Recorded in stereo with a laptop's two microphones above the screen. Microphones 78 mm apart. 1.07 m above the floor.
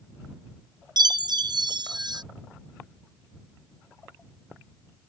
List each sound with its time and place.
1.0 s a chime: 65° right (ahead or behind)